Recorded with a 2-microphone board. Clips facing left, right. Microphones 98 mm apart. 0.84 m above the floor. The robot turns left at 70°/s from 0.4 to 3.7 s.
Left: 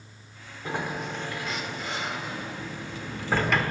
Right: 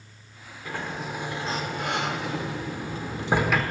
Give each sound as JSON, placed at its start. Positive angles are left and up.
{"t": 0.7, "sound": "a sliding door", "azimuth_deg": 25, "distance_m": 1.1}